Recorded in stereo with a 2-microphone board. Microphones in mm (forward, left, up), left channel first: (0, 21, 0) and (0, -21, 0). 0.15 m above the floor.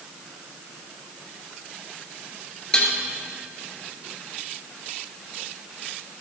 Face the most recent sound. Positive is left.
turn(degrees=15)  # may be behind; listen again after turning